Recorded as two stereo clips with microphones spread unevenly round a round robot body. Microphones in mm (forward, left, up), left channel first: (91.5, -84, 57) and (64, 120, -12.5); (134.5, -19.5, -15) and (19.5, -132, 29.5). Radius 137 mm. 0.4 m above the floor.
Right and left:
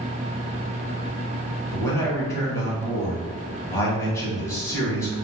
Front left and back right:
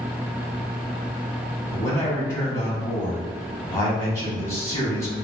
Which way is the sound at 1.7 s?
10° left.